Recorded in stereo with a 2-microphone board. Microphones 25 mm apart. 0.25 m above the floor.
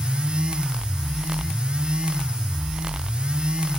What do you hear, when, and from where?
Only background noise.